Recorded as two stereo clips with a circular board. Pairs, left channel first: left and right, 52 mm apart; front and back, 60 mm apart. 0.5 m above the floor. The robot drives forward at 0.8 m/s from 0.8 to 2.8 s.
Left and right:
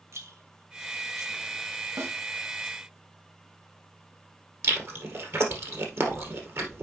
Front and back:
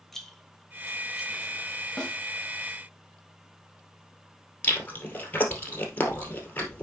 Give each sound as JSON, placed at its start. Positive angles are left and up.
{"t": 0.1, "sound": "a rattle", "azimuth_deg": -85, "distance_m": 1.4}
{"t": 2.0, "sound": "a snare drum", "azimuth_deg": -75, "distance_m": 2.0}
{"t": 4.6, "sound": "chewing", "azimuth_deg": -60, "distance_m": 2.0}